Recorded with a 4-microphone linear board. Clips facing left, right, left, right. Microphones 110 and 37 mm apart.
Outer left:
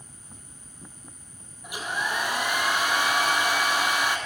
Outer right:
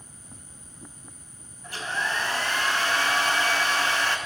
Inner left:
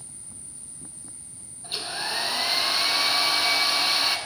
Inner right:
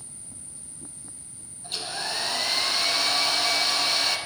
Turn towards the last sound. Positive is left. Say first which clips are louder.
# even, inner left 1 dB
turn(degrees=15)  # may be behind; listen again after turning